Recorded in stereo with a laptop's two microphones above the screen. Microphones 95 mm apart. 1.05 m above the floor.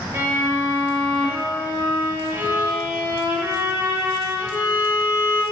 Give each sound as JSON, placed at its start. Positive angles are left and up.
{"t": 0.1, "sound": "a violin", "side_deg": -30, "distance_m": 0.8}